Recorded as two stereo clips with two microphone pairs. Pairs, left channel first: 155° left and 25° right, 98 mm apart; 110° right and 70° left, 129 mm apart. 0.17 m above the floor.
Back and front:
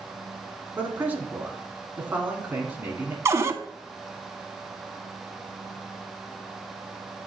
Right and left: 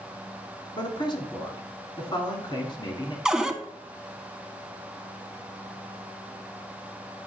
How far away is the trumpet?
No trumpet in this recording.